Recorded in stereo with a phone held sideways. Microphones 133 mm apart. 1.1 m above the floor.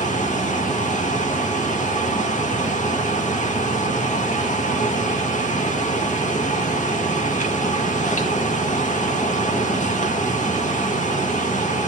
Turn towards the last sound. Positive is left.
turn(degrees=70)  # may be behind; listen again after turning